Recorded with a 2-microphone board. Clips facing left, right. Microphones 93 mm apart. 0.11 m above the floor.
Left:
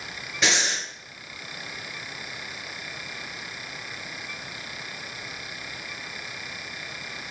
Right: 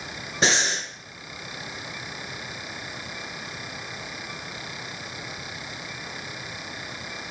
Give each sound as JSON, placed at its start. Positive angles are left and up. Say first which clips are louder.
{"t": 0.4, "sound": "breathing", "louder": "right 2 dB", "side_deg": -35, "distance_m": 1.6}